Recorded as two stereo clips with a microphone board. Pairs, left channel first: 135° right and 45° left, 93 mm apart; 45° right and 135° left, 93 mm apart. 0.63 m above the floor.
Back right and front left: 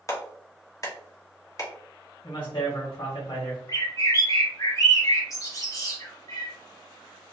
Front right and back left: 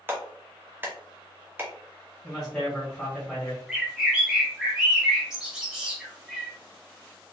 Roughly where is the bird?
Behind right.